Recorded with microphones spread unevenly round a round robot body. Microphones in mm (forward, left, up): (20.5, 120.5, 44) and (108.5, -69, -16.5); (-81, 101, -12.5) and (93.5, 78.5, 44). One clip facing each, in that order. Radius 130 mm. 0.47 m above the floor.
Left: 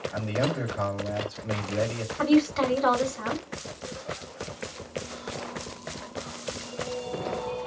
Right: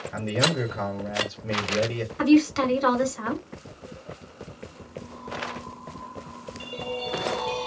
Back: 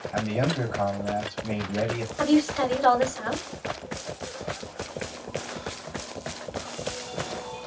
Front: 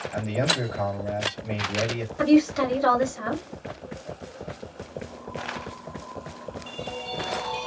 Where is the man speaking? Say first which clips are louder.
Right 3 dB, back 1 dB; 110° right, 1.6 m.